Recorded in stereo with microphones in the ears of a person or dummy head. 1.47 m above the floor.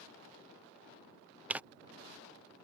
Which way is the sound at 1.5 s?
10° right (ahead or behind).